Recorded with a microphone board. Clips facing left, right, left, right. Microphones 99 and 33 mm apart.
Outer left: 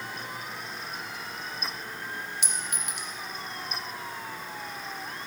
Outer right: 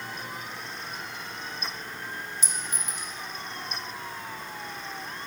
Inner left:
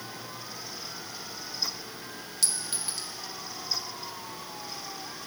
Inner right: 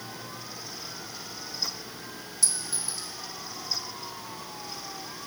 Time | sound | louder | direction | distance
2.4 | a clink | even, even | 65° left (ahead or behind) | 0.8 m